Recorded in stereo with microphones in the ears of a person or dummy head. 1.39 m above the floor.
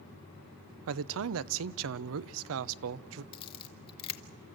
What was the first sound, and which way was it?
A man speaking, 65° right (ahead or behind).